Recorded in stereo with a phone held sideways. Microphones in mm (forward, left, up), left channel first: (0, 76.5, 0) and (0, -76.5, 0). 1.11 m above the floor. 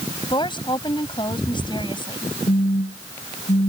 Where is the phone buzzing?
75° left (ahead or behind).